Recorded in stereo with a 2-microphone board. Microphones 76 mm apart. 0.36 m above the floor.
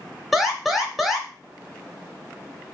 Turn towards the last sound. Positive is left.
turn(degrees=-5)  # may be behind; listen again after turning